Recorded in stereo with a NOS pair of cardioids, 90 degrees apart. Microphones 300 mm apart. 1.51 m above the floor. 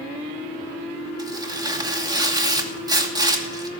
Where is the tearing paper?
15° right, 2.5 m.